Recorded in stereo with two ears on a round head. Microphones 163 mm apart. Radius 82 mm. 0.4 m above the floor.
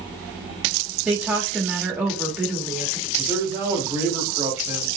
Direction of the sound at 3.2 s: 15° right (ahead or behind).